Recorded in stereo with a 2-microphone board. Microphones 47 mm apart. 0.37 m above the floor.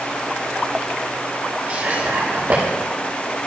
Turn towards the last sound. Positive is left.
turn(degrees=-50)  # may be behind; listen again after turning